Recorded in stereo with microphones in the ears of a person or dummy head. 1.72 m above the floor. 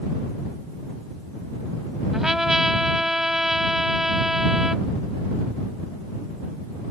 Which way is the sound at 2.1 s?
5° right (ahead or behind).